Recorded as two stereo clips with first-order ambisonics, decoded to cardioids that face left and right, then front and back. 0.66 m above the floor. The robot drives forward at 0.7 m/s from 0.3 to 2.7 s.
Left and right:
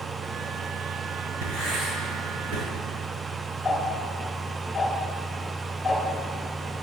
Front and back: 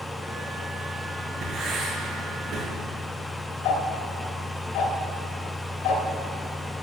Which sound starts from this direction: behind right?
Writing, at 1.4 s.